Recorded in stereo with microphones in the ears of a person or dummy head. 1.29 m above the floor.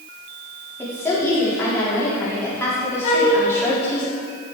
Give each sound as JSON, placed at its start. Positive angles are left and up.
{"t": 0.8, "sound": "a woman speaking", "side_deg": 15, "distance_m": 4.0}
{"t": 3.0, "sound": "a flute", "side_deg": 40, "distance_m": 1.5}